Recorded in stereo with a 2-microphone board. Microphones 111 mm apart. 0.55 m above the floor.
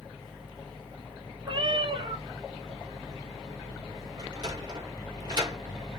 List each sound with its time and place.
1.4 s a cat meowing: 55° right (ahead or behind), 1.9 m
4.2 s a sliding door: 40° right (ahead or behind), 1.2 m